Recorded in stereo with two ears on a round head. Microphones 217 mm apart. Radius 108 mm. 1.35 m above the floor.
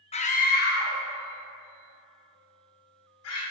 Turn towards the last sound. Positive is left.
turn(degrees=70)  # may be behind; listen again after turning